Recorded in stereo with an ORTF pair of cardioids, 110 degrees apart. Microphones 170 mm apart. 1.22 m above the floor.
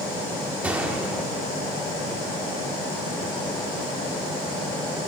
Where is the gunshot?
10° right, 1.8 m.